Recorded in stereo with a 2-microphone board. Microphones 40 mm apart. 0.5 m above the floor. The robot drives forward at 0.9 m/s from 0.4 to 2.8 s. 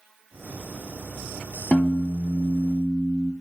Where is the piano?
30° left (ahead or behind), 0.6 m; by 3.3 s 10° left (ahead or behind), 1.5 m.